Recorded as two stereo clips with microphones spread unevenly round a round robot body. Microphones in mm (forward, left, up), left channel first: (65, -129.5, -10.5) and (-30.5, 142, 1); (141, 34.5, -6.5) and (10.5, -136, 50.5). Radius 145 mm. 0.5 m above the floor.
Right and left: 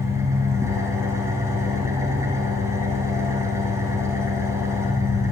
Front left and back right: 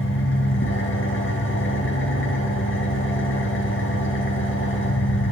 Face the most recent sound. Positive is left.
turn(degrees=30)